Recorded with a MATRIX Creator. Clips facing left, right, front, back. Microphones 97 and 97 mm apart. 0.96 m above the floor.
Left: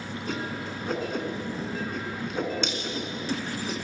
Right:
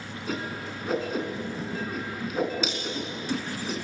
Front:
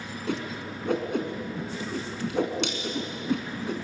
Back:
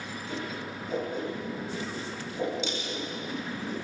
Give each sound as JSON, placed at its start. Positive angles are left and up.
{"t": 0.3, "sound": "a whoosh", "azimuth_deg": -5, "distance_m": 4.0}